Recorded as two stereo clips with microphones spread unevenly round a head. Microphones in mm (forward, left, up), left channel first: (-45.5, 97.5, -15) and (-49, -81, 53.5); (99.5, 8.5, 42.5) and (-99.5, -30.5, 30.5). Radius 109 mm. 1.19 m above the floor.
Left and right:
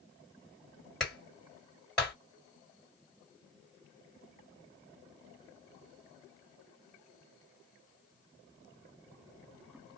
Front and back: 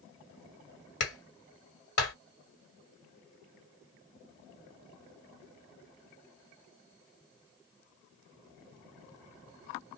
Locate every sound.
1.0 s a clap: straight ahead, 1.6 m